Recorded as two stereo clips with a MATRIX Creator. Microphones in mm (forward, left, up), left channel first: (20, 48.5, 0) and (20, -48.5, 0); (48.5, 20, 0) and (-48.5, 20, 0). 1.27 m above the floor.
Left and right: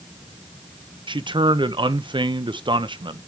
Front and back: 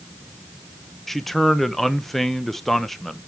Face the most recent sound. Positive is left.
turn(degrees=-85)